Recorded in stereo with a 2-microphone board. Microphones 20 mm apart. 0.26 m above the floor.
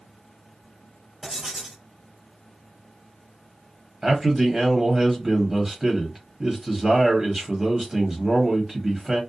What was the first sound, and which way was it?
Writing, 25° right (ahead or behind).